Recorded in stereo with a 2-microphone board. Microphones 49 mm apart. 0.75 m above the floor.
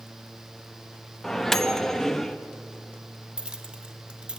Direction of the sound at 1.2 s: 10° left (ahead or behind).